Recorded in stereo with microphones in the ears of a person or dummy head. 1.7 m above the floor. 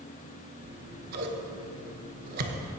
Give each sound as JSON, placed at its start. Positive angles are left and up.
{"t": 0.6, "sound": "scissors", "side_deg": -55, "distance_m": 0.9}